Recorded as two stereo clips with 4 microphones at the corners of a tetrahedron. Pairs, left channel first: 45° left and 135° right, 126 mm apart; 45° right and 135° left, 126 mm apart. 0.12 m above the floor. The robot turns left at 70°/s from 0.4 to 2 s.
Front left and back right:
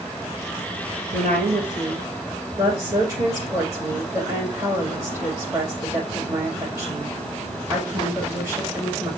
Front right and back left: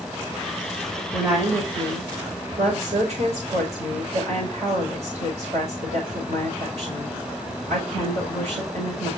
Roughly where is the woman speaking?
Behind right.